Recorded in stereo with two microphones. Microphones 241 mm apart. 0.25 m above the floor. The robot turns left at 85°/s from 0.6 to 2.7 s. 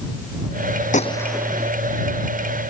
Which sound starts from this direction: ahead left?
A gunshot, at 0.9 s.